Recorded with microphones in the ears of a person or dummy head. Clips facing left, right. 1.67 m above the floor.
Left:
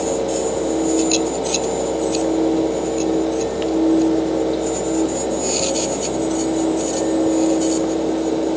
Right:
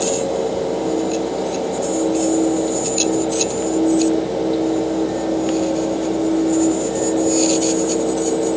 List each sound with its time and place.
Only background noise.